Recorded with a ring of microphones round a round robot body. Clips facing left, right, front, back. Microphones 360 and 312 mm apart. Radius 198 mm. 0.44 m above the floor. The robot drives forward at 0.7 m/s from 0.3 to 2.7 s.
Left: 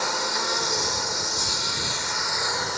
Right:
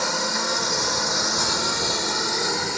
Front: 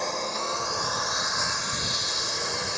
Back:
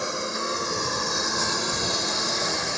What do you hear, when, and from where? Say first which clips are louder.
0.0 s a lawn mower: right 3 dB, back 2 dB; 100° right; by 2.8 s 145° right